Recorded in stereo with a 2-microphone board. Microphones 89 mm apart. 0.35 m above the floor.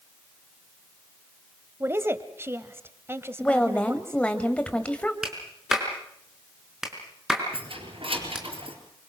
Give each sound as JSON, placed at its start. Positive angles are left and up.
{"t": 1.8, "sound": "a woman speaking", "side_deg": -25, "distance_m": 1.4}
{"t": 3.4, "sound": "a woman speaking", "side_deg": 15, "distance_m": 1.8}
{"t": 5.2, "sound": "a clap", "side_deg": -5, "distance_m": 4.5}
{"t": 7.5, "sound": "keys jangling", "side_deg": -80, "distance_m": 4.5}